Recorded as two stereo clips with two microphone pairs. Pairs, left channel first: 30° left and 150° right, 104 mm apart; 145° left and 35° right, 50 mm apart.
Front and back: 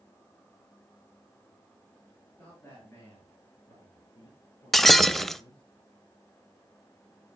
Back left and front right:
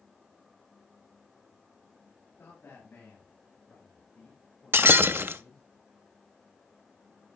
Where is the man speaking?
100° left, 5.5 m; by 5.6 s 70° left, 7.5 m.